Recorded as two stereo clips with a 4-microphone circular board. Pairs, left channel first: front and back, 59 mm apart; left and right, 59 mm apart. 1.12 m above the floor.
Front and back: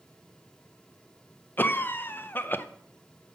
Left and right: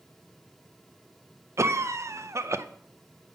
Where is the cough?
55° right, 0.5 m.